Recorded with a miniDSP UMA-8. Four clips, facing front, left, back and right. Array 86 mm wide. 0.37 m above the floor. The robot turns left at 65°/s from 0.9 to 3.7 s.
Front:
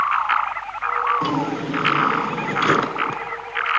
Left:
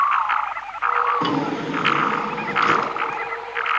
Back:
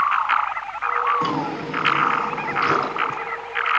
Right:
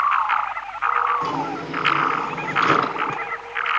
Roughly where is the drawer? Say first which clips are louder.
Left 3 dB, front 1 dB; left.